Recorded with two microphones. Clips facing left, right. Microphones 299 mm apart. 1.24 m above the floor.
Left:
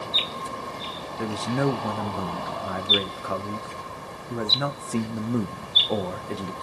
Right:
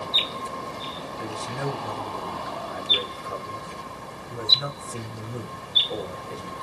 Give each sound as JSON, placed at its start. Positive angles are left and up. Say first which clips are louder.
{"t": 1.2, "sound": "a man speaking", "louder": "left 8 dB", "side_deg": 80, "distance_m": 0.6}